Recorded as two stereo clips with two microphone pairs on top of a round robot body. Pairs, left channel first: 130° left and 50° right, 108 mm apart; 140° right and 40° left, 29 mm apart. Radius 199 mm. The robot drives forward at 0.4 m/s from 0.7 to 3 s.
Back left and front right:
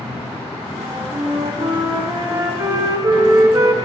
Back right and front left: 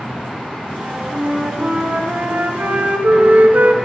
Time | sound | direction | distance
0.8 | a flute | 5° left | 1.5 m